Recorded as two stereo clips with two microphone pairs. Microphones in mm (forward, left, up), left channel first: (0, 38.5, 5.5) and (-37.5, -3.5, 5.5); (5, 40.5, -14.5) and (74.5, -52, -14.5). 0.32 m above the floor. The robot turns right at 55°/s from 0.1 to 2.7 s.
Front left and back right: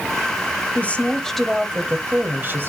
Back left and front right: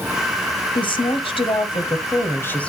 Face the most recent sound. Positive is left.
turn(degrees=-155)